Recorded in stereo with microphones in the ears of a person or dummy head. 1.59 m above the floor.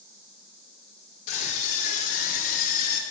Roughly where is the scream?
Left.